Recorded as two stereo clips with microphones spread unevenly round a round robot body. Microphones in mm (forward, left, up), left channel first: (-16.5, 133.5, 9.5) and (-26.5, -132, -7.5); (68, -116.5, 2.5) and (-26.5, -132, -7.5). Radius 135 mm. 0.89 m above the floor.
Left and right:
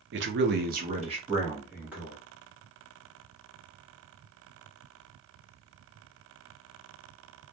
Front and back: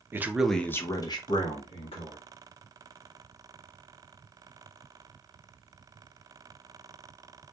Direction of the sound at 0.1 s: 115° right.